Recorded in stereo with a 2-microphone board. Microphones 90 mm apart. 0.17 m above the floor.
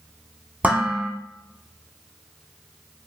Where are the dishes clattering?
15° right (ahead or behind), 0.7 m.